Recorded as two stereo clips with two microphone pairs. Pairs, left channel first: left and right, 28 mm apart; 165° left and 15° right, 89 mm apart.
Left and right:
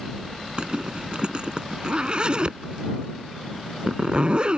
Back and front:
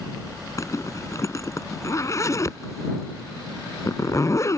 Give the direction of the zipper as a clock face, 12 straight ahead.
5 o'clock.